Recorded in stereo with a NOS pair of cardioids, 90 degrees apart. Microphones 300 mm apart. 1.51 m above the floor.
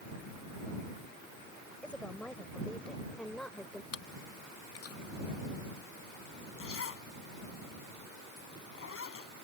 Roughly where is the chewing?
Ahead left.